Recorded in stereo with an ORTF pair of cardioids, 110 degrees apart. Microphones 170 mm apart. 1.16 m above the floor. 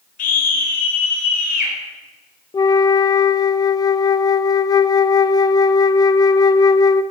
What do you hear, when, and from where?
0.2 s a scream: 55° left, 4 m
2.5 s a flute: 25° left, 0.6 m